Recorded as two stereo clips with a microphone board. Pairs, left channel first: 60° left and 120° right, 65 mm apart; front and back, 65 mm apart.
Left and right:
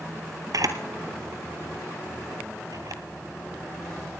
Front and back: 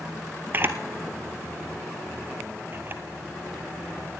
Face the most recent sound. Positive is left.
turn(degrees=-125)